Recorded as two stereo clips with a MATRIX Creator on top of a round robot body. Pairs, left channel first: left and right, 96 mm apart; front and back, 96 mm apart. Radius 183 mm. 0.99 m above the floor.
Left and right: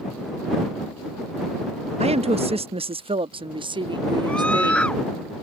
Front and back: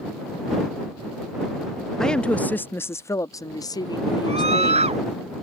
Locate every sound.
2.0 s a woman speaking: 85° right; by 4.9 s 40° right
4.3 s a scream: 170° left